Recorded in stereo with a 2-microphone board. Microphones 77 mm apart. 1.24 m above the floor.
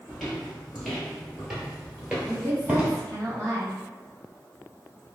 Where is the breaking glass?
No breaking glass in this recording.